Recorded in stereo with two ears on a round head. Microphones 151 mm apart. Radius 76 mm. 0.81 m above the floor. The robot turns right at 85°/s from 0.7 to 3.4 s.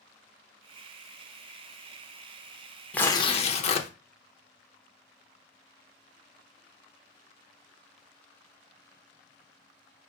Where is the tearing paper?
10° left, 0.6 m; by 3.9 s 50° left, 0.6 m.